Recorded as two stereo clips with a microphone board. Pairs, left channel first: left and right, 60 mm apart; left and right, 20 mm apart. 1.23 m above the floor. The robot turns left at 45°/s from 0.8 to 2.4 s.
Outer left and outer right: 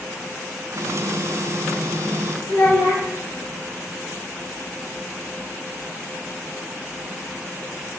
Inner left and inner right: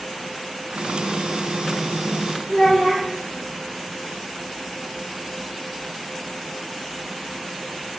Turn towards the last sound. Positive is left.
turn(degrees=55)  # may be behind; listen again after turning